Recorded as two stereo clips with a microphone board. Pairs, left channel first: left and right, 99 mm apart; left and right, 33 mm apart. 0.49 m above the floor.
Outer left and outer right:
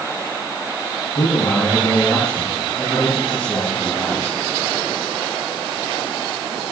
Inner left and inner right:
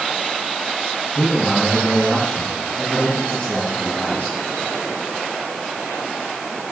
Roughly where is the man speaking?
Left.